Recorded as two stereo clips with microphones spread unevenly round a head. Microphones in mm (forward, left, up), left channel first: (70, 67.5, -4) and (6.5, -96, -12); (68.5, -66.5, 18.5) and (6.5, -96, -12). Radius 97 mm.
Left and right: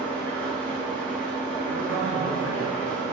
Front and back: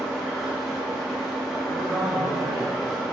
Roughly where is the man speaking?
Right.